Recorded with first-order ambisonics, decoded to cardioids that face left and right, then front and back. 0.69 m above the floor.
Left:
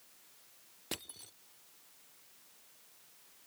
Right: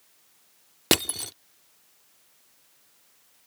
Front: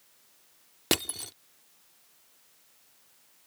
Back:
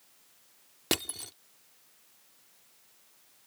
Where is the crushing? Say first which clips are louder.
Right 20 dB, front 3 dB; 80° right.